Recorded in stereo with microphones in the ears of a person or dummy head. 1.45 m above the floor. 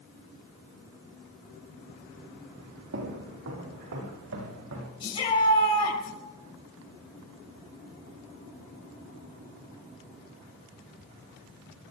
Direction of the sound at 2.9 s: 70° right (ahead or behind).